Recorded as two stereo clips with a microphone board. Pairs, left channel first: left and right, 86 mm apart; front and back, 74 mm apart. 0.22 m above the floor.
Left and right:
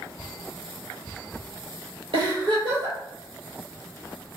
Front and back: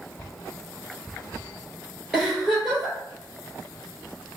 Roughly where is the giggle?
Right.